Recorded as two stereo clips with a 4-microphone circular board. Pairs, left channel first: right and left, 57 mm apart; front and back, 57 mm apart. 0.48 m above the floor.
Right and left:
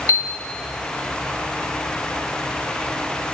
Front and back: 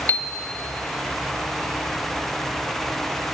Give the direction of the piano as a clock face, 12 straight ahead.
2 o'clock.